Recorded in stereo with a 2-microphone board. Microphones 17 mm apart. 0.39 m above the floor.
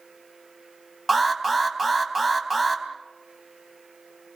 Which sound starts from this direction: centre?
An alarm, at 1.1 s.